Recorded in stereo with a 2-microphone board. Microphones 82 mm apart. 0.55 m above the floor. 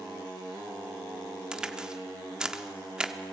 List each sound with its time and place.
1.5 s a crack: 10° right (ahead or behind), 0.9 m